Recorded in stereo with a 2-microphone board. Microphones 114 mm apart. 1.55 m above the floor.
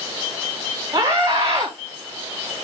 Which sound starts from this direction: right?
A scream, at 0.9 s.